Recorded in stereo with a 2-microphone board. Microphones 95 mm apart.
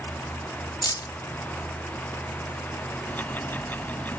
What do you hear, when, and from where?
0.8 s keys jangling: 45° left (ahead or behind)
3.1 s ticking: 20° left (ahead or behind)